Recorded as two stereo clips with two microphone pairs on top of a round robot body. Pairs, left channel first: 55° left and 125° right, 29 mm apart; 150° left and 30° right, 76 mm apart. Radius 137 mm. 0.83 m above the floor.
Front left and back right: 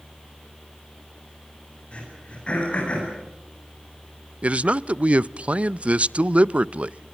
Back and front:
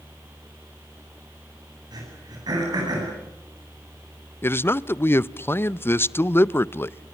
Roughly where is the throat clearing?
Ahead.